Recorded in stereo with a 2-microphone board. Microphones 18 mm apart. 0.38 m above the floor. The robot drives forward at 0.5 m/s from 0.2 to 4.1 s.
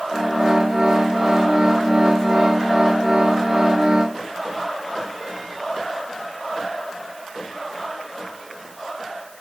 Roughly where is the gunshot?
I don't hear a gunshot.